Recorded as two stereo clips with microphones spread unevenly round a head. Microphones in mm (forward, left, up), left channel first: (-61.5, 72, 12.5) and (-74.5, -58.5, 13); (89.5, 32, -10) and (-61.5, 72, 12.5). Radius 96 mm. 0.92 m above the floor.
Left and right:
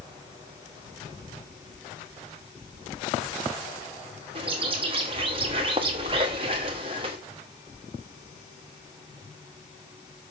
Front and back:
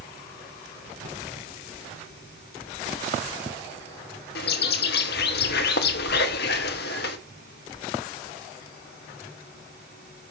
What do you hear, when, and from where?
4.3 s a bird: 35° right, 0.9 m